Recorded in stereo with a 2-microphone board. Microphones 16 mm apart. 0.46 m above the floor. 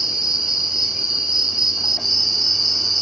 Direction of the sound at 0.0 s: 60° right (ahead or behind).